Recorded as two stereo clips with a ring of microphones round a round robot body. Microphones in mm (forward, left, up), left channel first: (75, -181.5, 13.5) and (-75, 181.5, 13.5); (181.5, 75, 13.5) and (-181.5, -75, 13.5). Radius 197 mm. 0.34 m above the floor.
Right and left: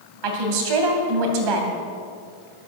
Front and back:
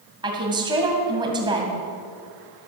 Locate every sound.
0.2 s a woman speaking: 125° left, 2.5 m